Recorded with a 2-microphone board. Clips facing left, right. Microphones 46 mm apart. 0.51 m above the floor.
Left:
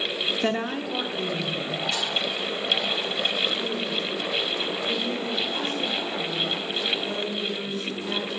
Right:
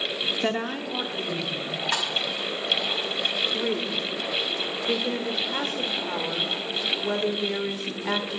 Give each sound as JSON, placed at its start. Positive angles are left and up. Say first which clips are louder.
{"t": 0.4, "sound": "a woman speaking", "louder": "left 1 dB", "side_deg": -5, "distance_m": 0.7}
{"t": 1.9, "sound": "a snare drum", "louder": "right 1 dB", "side_deg": -70, "distance_m": 3.0}
{"t": 3.5, "sound": "a woman speaking", "louder": "right 1 dB", "side_deg": -55, "distance_m": 1.6}